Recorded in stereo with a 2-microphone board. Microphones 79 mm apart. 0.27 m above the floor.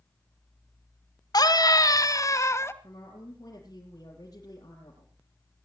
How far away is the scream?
About 2.5 m.